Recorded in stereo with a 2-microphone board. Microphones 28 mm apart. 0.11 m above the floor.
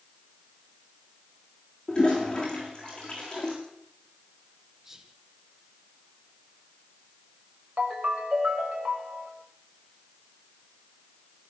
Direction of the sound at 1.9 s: 30° left (ahead or behind).